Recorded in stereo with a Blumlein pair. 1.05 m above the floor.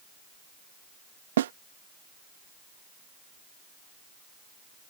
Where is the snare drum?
60° right.